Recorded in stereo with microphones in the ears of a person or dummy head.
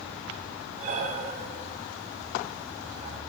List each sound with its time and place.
0.8 s breathing: 50° right (ahead or behind), 1.5 m